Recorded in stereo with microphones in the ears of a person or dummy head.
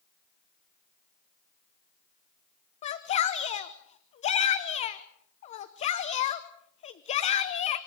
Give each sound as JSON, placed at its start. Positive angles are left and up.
{"t": 2.8, "sound": "a shout", "side_deg": 40, "distance_m": 1.0}